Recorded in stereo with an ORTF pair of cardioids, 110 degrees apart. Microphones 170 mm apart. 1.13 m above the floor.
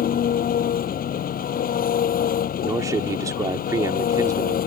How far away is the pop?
No pop in this recording.